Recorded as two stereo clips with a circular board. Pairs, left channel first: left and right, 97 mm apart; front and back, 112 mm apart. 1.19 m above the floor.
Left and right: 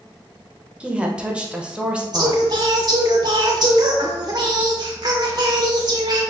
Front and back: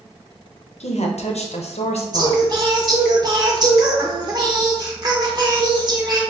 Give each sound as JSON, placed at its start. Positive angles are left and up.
{"t": 0.8, "sound": "a woman speaking", "azimuth_deg": -10, "distance_m": 0.6}
{"t": 2.1, "sound": "singing", "azimuth_deg": -130, "distance_m": 0.6}